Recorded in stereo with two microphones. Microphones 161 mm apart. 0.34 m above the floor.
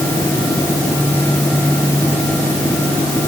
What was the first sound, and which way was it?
Only background noise.